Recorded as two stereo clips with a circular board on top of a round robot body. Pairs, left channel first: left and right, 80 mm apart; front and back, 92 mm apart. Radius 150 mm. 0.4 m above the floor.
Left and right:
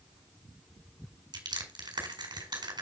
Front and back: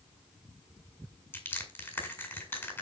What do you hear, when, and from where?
1.3 s crushing: 70° right, 4.5 m